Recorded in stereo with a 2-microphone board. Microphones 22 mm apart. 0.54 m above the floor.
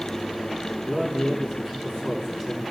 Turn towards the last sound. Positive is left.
turn(degrees=-20)  # may be behind; listen again after turning